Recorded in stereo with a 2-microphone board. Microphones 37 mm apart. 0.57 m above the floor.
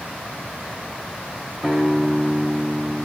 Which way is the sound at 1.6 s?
10° right (ahead or behind).